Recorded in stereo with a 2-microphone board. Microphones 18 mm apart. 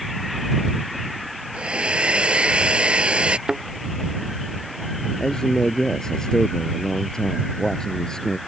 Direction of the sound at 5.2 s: 30° left (ahead or behind).